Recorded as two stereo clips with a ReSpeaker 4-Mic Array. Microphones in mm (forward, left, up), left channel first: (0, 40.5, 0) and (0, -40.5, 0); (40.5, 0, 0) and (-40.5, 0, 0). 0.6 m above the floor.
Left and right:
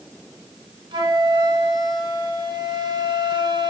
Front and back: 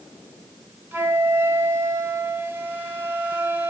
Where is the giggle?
I don't hear a giggle.